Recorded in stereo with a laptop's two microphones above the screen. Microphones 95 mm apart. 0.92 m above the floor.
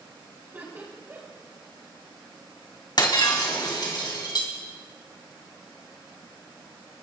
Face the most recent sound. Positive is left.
turn(degrees=50)  # may be behind; listen again after turning